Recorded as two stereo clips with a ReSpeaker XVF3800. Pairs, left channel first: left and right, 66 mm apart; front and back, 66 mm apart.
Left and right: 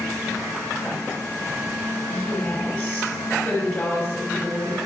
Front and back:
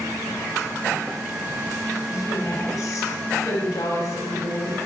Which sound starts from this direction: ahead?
A woman speaking, at 2.1 s.